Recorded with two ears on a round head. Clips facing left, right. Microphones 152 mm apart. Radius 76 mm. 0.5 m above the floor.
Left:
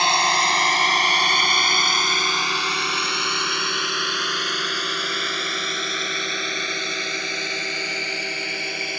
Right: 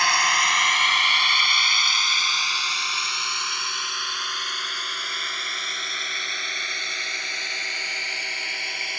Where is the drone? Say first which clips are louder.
Left 4 dB; 25° left (ahead or behind); by 9.0 s 70° left (ahead or behind).